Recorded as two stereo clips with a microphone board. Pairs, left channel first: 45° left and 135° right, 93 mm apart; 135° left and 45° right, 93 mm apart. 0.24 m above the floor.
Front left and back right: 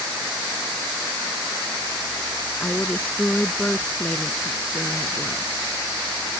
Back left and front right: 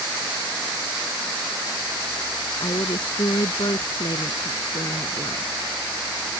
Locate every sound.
2.6 s a woman speaking: 115° left